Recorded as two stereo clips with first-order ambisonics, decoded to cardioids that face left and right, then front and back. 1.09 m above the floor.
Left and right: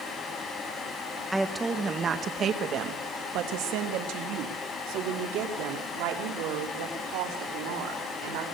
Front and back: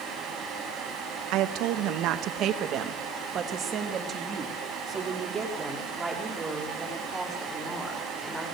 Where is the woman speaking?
Straight behind, 1.3 m; by 8.4 s 100° right, 5 m.